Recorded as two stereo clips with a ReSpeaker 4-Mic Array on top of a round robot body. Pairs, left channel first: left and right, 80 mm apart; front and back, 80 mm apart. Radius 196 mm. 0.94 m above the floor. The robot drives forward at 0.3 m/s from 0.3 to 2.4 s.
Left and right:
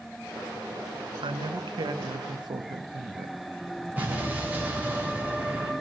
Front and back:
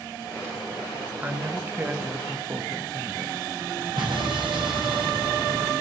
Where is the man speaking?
110° right, 1.1 m; by 3.4 s 125° right, 1.2 m.